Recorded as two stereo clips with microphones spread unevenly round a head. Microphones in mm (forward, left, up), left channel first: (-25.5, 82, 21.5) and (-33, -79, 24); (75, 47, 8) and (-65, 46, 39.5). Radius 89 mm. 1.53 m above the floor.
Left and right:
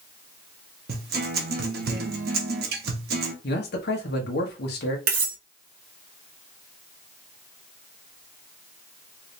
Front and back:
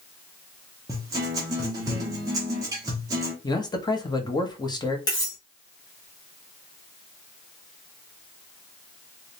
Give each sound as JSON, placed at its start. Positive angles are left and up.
{"t": 0.9, "sound": "a guitar", "azimuth_deg": -115, "distance_m": 1.1}
{"t": 3.4, "sound": "a man speaking", "azimuth_deg": 60, "distance_m": 1.3}
{"t": 5.1, "sound": "cutlery clinking", "azimuth_deg": -75, "distance_m": 1.2}